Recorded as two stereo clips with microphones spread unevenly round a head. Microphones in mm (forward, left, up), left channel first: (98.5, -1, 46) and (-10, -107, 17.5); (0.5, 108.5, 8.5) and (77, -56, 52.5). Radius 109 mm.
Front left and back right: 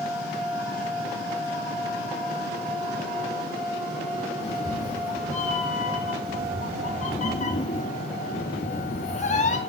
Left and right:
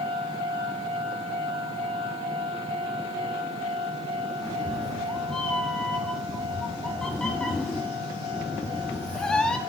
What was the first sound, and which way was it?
A cat meowing, 20° left.